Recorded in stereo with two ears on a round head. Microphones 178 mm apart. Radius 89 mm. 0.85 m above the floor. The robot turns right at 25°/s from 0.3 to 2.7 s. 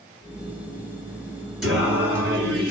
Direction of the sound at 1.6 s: Centre (ahead or behind).